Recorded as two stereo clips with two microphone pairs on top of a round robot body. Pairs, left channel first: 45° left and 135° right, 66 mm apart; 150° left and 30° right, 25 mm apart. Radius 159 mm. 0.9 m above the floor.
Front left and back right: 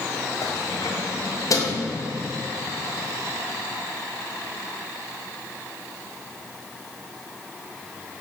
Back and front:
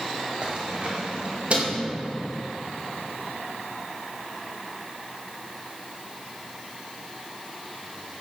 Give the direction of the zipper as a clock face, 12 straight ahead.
No zipper in this recording.